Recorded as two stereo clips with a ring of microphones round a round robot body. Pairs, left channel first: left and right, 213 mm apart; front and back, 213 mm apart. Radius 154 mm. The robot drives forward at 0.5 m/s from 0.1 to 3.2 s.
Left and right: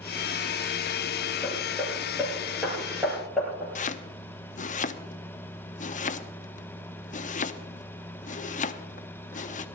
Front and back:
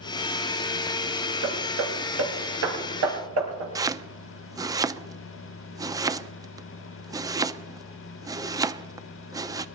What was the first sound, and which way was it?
Hammering, straight behind.